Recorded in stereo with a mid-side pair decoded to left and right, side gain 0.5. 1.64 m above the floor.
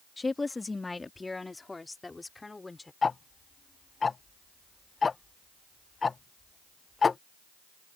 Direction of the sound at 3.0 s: 30° left.